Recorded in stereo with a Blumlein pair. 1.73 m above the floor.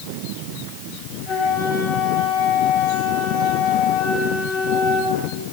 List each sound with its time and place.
1.3 s a flute: 40° left, 9.5 m